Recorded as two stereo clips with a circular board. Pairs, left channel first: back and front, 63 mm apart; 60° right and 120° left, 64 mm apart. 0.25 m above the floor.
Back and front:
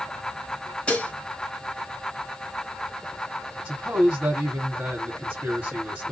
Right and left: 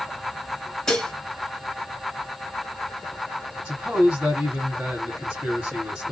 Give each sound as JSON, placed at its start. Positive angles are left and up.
{"t": 0.9, "sound": "dishes clattering", "azimuth_deg": -130, "distance_m": 1.0}
{"t": 3.6, "sound": "a man speaking", "azimuth_deg": 50, "distance_m": 1.9}